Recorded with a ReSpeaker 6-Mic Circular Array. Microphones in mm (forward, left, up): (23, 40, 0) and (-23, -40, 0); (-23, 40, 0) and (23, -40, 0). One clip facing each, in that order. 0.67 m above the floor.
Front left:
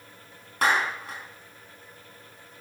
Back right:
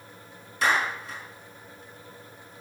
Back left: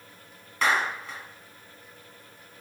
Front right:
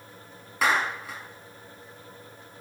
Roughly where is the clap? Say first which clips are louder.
Front left 1 dB, front right 1 dB; ahead left.